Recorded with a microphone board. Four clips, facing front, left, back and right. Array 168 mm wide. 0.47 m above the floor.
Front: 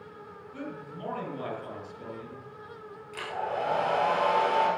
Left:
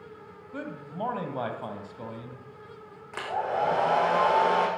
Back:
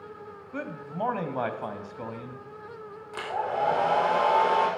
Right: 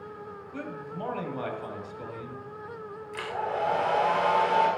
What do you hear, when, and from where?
0.5 s a man speaking: 160° left, 2.5 m
3.1 s a hair dryer: 120° left, 4.5 m